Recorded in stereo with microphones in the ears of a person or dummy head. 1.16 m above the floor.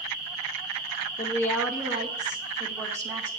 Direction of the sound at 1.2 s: 20° left (ahead or behind).